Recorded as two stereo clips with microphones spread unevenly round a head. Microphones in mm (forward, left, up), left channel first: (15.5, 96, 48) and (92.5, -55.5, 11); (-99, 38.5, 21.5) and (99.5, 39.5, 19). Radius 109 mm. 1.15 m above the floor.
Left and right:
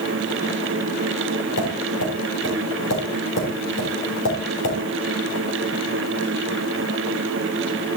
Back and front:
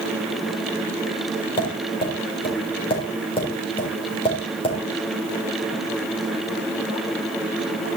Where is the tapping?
115° left, 4.5 m.